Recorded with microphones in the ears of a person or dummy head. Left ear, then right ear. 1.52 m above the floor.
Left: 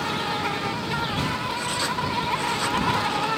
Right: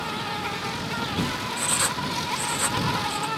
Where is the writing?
25° right (ahead or behind).